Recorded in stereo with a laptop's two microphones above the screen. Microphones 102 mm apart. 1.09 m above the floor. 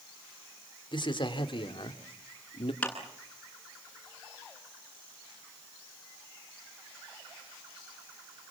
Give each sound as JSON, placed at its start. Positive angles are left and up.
{"t": 0.9, "sound": "a man speaking", "side_deg": 50, "distance_m": 3.5}
{"t": 2.8, "sound": "a clap", "side_deg": 10, "distance_m": 10.0}